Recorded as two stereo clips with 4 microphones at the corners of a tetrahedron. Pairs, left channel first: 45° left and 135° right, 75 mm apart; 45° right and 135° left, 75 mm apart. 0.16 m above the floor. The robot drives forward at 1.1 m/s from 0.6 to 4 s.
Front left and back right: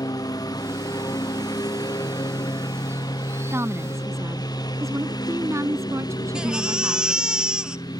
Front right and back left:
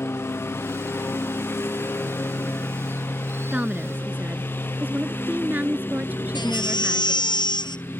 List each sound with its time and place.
0.0 s a lawn mower: 10° left; by 8.0 s 15° left
3.5 s a woman speaking: 160° right; by 7.3 s 165° right
6.3 s a baby crying: 55° right